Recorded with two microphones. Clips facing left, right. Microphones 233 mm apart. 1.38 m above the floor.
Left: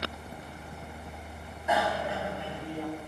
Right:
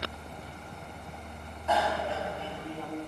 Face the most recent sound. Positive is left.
turn(degrees=15)  # may be behind; listen again after turning